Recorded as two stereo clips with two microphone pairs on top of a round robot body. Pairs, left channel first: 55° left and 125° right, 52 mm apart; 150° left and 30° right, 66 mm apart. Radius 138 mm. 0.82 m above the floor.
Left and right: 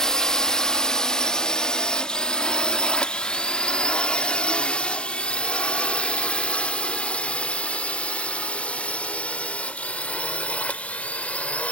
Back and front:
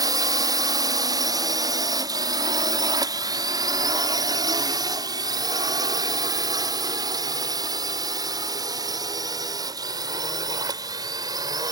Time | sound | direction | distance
0.0 | a drone | 15° right | ?